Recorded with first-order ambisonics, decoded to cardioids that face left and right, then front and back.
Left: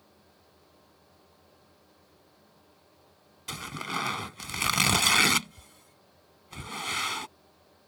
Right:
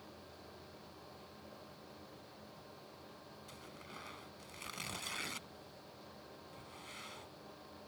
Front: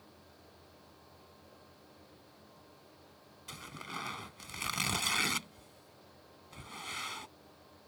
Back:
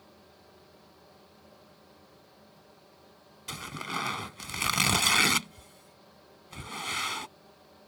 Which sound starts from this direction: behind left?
Tearing paper, at 3.5 s.